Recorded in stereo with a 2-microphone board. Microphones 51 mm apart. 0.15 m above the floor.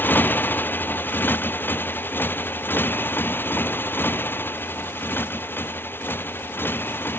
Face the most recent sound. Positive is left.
turn(degrees=45)  # may be behind; listen again after turning